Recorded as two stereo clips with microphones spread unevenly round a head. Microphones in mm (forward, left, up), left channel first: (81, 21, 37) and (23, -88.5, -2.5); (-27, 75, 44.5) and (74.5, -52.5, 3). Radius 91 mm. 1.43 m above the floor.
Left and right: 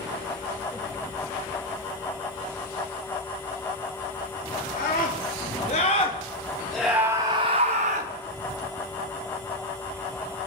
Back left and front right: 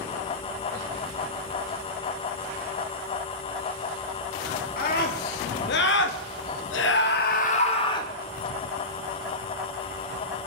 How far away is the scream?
About 2.5 m.